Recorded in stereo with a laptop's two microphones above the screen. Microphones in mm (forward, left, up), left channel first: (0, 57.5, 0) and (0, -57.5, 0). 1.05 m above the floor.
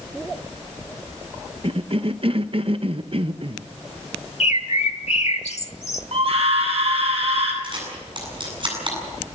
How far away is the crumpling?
I don't hear crumpling.